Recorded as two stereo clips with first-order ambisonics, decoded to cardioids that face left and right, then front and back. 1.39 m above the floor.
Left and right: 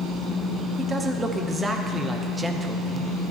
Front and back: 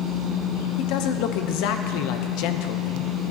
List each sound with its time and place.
0.8 s a man speaking: 10° right, 0.7 m